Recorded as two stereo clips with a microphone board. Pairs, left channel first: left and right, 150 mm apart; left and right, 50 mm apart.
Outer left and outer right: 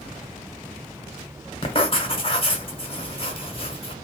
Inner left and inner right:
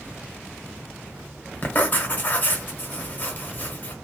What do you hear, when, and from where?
1.6 s writing: 40° left (ahead or behind), 0.8 m